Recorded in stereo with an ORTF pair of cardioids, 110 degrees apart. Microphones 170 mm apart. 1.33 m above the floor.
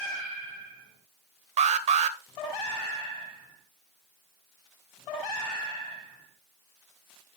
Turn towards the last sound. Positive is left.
turn(degrees=-45)